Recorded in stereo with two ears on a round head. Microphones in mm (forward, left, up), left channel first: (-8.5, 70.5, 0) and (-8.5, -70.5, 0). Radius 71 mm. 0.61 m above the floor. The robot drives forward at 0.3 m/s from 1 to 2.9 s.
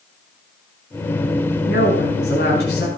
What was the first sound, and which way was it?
A woman speaking, 80° left.